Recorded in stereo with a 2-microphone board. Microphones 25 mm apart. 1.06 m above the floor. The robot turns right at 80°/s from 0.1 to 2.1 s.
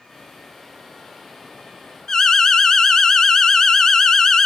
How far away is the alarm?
About 0.8 m.